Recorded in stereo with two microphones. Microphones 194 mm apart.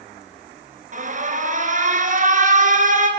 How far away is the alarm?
About 2 m.